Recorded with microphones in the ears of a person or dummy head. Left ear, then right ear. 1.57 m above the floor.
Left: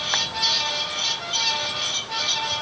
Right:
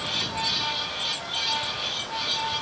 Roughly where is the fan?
Left.